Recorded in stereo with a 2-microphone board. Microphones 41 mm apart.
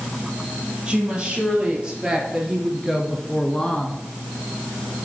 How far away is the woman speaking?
About 4 m.